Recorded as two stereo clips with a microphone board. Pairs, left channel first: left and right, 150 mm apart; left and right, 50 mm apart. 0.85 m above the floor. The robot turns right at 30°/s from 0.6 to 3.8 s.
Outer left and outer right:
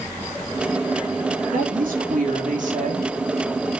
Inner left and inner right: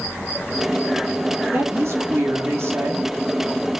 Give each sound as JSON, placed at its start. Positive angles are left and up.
{"t": 1.5, "sound": "a woman speaking", "azimuth_deg": -105, "distance_m": 2.0}